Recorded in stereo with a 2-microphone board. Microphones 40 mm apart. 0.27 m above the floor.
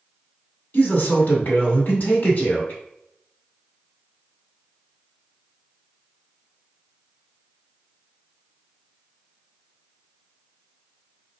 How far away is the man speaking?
About 1.9 m.